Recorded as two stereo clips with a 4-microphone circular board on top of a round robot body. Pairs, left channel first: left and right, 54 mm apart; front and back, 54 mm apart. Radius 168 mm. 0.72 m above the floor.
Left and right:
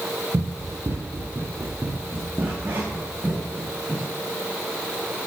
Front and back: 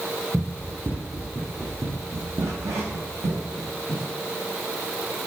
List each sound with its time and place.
0.3 s running footsteps: 110° right, 1.4 m; by 4.1 s 165° right, 3 m